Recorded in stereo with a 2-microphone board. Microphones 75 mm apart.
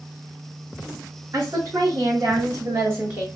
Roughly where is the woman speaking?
Right.